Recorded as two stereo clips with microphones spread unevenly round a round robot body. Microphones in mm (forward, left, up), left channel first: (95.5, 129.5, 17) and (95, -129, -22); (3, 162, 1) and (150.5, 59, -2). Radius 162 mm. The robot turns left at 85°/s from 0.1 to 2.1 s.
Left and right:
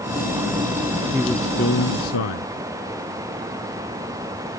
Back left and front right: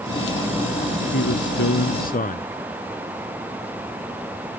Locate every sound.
1.1 s a man speaking: 170° right; by 2.5 s 105° left